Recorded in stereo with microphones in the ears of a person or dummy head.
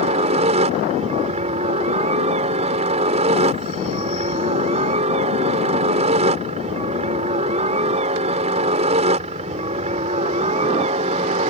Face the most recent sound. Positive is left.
turn(degrees=-35)  # may be behind; listen again after turning